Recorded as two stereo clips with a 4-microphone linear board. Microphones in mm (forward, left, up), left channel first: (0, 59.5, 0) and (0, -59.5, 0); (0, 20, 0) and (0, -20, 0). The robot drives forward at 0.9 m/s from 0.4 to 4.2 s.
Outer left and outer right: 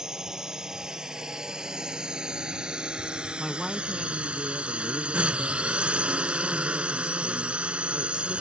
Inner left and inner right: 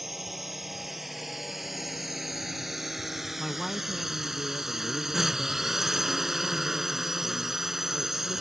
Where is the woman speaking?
5° right (ahead or behind); by 8.4 s centre (ahead or behind).